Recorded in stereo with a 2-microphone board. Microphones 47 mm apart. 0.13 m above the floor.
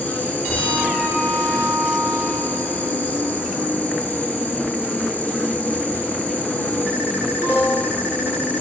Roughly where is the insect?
Left.